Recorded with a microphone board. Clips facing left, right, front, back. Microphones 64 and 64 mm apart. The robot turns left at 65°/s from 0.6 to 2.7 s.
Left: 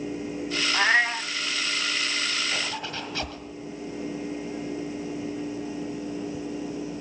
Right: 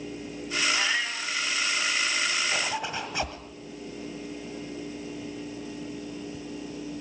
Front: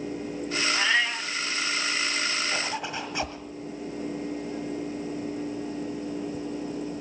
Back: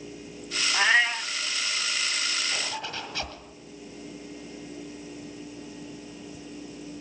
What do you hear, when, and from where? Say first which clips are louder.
0.7 s a cat meowing: left 7 dB, back 5 dB; 125° left, 0.7 m; by 1.3 s 90° left, 0.7 m
2.5 s a zipper: right 2 dB, front 3 dB; 30° right, 1.7 m; by 3.4 s 40° right, 1.7 m